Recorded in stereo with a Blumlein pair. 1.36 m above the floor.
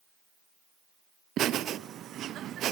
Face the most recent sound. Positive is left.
turn(degrees=-30)